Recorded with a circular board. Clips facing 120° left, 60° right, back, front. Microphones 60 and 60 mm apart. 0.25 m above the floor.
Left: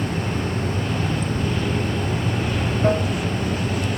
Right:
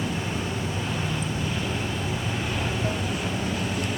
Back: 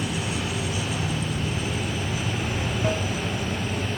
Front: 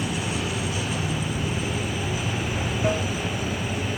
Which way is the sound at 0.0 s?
80° left.